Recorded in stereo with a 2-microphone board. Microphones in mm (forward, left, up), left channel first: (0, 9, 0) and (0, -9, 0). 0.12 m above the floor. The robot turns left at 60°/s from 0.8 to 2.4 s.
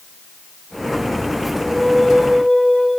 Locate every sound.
1.6 s a flute: 5° left, 10 m; by 2.9 s 45° right, 10 m